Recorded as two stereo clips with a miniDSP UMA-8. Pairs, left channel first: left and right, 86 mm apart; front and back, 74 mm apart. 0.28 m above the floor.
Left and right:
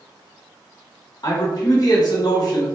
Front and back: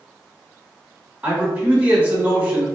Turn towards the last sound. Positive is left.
turn(degrees=115)